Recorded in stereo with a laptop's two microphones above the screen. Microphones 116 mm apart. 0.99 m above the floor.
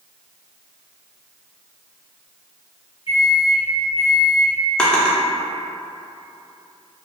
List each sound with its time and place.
3.1 s a microwave: 50° left (ahead or behind), 0.9 m
4.8 s a drawer: 10° left (ahead or behind), 0.6 m